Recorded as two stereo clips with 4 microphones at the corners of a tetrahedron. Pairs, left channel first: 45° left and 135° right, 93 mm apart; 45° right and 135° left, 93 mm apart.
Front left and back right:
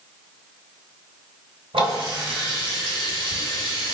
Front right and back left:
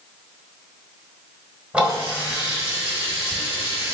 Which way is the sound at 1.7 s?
145° right.